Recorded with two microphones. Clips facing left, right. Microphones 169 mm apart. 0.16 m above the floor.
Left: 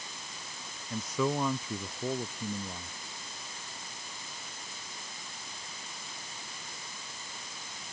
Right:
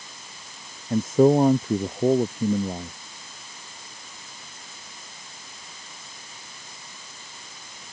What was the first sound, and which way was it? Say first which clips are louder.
A man speaking: right 14 dB; 50° right (ahead or behind).